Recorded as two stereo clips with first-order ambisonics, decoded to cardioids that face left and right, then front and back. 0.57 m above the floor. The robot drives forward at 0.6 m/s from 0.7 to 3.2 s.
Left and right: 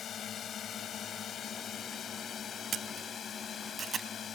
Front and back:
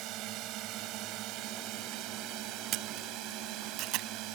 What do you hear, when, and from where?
0.0 s a drone: 150° left
2.7 s a camera shutter: 145° right; by 4.1 s 155° right